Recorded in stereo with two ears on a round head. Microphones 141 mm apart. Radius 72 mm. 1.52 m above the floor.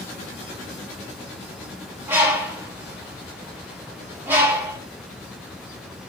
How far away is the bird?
About 1.4 m.